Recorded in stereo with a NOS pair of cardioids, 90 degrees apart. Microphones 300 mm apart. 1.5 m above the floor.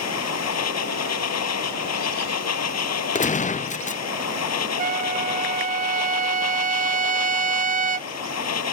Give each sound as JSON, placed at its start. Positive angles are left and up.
{"t": 0.0, "sound": "a machine running", "azimuth_deg": 60}
{"t": 3.1, "sound": "a gunshot", "azimuth_deg": 25}
{"t": 4.8, "sound": "a trumpet", "azimuth_deg": -30}